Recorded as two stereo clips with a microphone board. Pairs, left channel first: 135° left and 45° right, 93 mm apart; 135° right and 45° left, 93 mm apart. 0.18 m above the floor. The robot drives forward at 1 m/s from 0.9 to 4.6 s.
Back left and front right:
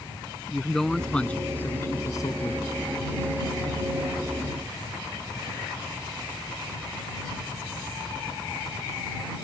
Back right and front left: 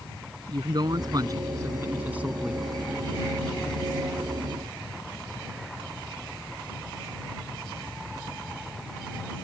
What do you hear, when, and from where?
0.5 s a man speaking: 50° left; by 2.6 s 130° left